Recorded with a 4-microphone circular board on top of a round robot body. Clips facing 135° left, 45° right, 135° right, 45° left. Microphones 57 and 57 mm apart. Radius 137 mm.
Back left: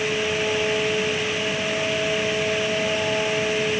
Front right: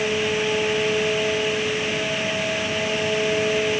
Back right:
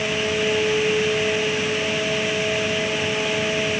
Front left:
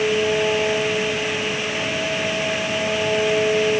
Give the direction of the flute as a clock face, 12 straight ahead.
I don't hear a flute.